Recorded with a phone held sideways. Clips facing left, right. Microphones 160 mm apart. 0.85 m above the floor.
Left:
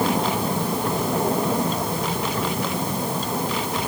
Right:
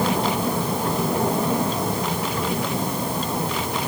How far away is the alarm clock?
No alarm clock in this recording.